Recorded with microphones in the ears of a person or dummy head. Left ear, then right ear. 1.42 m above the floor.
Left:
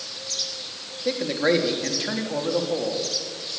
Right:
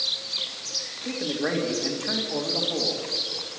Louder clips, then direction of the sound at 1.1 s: Left 9 dB; 35° left (ahead or behind).